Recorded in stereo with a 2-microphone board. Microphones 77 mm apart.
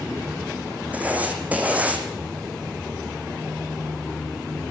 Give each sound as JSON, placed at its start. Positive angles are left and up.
{"t": 0.9, "sound": "writing", "side_deg": -20, "distance_m": 5.5}